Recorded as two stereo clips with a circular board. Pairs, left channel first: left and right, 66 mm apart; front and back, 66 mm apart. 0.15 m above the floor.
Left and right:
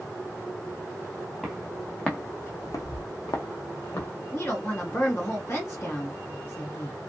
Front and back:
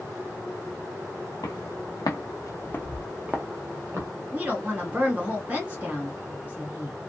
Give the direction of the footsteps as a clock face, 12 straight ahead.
12 o'clock.